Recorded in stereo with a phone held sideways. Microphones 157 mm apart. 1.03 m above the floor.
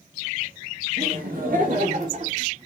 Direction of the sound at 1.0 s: 75° right (ahead or behind).